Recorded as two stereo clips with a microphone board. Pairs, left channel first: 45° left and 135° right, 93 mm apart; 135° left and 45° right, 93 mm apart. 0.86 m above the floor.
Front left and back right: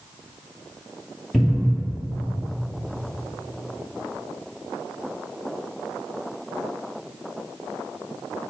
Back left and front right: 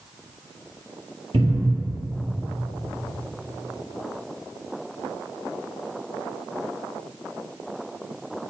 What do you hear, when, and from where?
1.3 s a cupboard door: 45° right, 2.0 m